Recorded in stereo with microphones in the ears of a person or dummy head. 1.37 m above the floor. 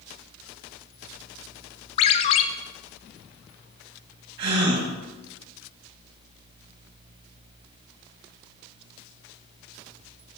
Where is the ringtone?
35° left (ahead or behind), 0.5 m.